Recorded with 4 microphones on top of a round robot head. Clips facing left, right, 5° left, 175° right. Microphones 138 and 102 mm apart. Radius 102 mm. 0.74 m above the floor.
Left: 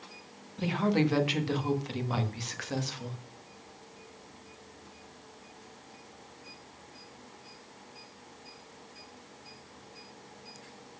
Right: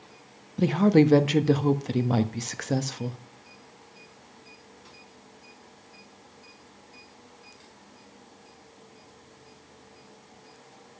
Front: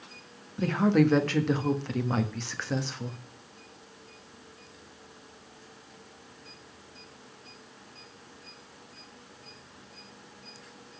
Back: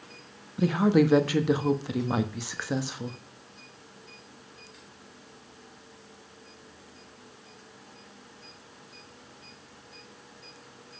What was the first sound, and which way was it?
A woman speaking, 95° right.